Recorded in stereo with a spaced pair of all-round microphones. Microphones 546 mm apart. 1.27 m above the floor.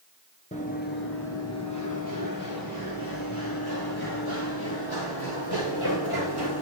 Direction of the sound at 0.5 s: 10° left (ahead or behind).